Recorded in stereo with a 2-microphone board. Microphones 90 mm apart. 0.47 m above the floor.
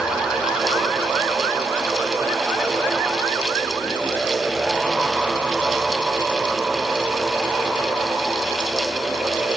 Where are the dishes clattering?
No dishes clattering in this recording.